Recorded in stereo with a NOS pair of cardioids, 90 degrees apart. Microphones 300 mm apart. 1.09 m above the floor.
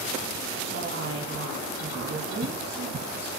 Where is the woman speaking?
45° right, 8.5 m.